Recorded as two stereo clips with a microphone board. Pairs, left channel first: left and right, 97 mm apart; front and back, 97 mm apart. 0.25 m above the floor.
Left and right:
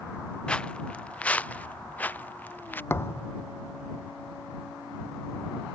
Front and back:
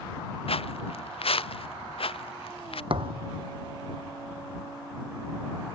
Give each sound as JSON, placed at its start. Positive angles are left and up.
{"t": 0.5, "sound": "footsteps", "azimuth_deg": 10}
{"t": 2.9, "sound": "a thud", "azimuth_deg": 155}